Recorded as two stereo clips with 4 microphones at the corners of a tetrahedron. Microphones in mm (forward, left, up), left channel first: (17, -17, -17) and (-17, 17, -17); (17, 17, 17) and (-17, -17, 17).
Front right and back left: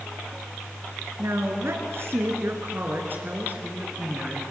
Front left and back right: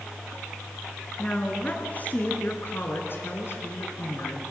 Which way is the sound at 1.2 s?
110° left.